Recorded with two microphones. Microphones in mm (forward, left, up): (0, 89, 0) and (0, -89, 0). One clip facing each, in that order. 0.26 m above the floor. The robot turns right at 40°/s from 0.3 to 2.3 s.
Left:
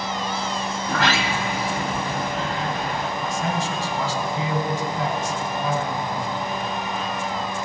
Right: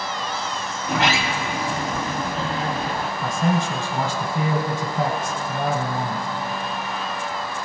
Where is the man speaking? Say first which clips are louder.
Right 6 dB; 55° right (ahead or behind), 1.8 m.